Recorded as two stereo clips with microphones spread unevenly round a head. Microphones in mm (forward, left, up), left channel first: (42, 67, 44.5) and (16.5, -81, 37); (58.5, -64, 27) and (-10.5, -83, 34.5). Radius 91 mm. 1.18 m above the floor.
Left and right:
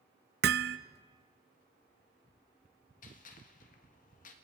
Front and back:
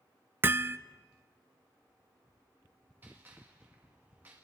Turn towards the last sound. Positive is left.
turn(degrees=120)